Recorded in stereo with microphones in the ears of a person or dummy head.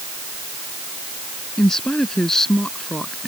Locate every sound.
1.6 s a woman speaking: centre (ahead or behind)